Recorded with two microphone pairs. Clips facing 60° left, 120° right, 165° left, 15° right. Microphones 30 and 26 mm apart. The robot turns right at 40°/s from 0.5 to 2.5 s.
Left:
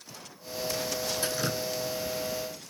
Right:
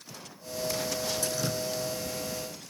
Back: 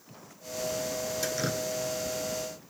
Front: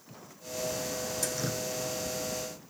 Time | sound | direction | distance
1.2 | dripping | 105° left | 0.6 m